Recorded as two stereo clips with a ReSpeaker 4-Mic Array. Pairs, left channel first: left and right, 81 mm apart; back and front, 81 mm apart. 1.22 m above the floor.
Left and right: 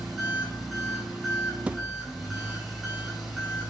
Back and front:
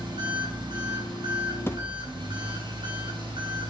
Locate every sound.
0.0 s an engine running: straight ahead, 4.5 m
1.7 s a thud: 155° right, 0.5 m